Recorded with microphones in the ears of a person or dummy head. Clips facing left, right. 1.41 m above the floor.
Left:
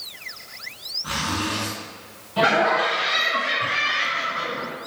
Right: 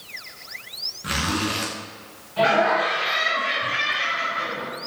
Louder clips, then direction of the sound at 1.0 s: Right 2 dB; 20° right (ahead or behind).